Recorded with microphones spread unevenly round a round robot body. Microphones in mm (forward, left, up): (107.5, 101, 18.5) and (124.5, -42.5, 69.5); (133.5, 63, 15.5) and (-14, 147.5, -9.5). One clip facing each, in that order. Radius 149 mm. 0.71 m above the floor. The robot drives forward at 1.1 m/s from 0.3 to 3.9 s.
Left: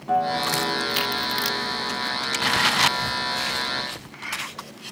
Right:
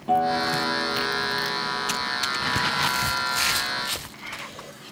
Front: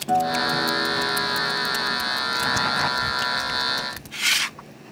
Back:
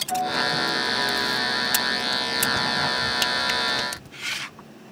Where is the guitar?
15° right, 9 m; by 2.0 s 20° right, 7.5 m.